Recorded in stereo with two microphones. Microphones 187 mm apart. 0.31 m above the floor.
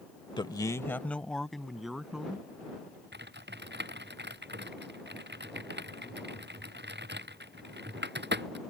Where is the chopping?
I don't hear chopping.